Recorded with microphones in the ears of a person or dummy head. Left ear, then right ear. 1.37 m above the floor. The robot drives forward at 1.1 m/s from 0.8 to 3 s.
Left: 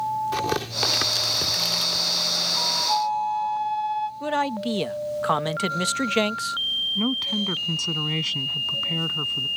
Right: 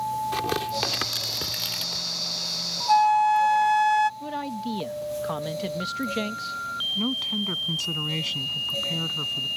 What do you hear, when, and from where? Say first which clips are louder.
0.3 s tearing paper: left 1 dB; 5° right (ahead or behind)
2.9 s a flute: right 5 dB; 70° right (ahead or behind); by 4.1 s 65° right (ahead or behind)
4.2 s a man speaking: left 6 dB; 30° left (ahead or behind)
7.0 s a woman speaking: left 2 dB; 5° left (ahead or behind)